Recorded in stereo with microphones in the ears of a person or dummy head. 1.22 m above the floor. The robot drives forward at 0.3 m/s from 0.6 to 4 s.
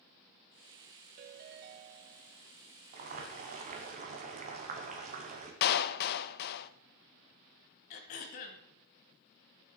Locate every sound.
1.2 s a ringtone: 50° right (ahead or behind), 1.0 m; by 2.4 s 60° right (ahead or behind), 0.9 m
2.9 s boiling: 45° right (ahead or behind), 2.5 m; by 5.5 s 40° right (ahead or behind), 3 m
5.6 s a clap: 55° left (ahead or behind), 0.8 m
7.9 s throat clearing: 40° left (ahead or behind), 1.6 m